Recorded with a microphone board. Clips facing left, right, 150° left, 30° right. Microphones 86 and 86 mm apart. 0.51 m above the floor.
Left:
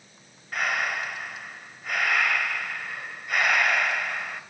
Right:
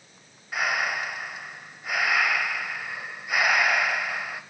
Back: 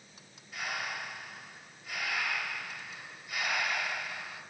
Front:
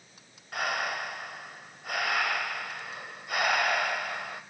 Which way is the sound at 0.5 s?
5° right.